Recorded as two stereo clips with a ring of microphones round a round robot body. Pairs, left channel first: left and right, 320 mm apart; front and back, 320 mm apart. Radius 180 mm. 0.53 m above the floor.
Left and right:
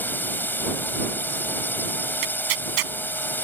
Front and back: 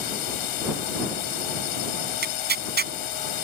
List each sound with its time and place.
0.0 s a drone: 5° left
2.2 s tearing paper: 120° right